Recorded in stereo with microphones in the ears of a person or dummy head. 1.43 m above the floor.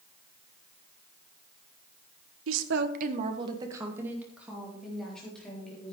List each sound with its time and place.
2.5 s a woman speaking: 80° right, 1.3 m; by 6.0 s 5° left (ahead or behind), 4.5 m